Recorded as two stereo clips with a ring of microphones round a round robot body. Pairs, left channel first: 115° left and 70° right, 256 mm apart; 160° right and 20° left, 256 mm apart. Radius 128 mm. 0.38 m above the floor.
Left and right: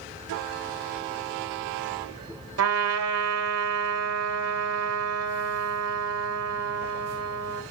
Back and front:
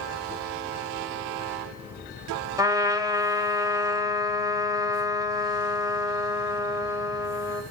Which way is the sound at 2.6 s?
55° right.